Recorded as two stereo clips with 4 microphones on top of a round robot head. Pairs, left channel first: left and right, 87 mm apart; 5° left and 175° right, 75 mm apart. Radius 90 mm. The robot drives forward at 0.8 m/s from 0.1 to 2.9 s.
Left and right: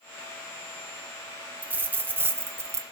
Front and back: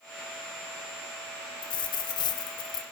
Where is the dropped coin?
20° right, 2 m; by 2.8 s 35° right, 1.2 m.